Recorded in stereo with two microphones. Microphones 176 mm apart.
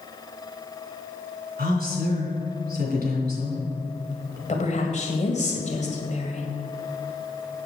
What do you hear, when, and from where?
1.6 s a woman speaking: 60° right (ahead or behind), 3 m
4.5 s a woman speaking: 45° left (ahead or behind), 1.8 m